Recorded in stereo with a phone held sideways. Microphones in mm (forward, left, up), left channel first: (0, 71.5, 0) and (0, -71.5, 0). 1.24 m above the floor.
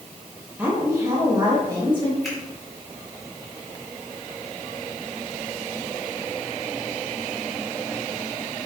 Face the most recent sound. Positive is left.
turn(degrees=0)  # may be behind; listen again after turning